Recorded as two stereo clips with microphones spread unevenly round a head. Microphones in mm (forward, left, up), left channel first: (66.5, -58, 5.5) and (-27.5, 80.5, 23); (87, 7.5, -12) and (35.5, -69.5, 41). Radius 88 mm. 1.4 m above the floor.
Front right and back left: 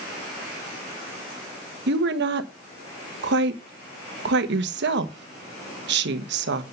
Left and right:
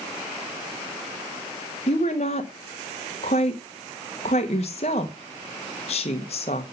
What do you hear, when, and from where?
1.9 s a woman speaking: 105° left, 1.3 m